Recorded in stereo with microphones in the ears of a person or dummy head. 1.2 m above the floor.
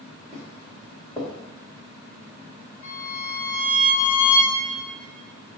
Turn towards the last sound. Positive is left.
turn(degrees=45)  # may be behind; listen again after turning